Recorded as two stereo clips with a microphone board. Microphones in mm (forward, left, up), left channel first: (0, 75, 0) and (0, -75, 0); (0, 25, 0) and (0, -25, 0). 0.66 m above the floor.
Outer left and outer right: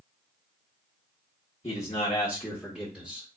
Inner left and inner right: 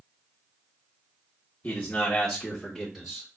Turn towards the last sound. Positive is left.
turn(degrees=-5)  # may be behind; listen again after turning